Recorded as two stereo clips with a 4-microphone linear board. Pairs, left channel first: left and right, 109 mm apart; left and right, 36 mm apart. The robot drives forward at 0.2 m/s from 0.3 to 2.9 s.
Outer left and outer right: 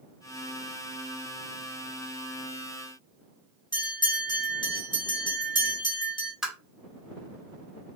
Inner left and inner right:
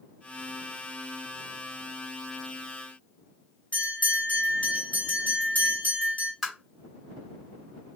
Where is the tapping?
5° right (ahead or behind), 1.3 m.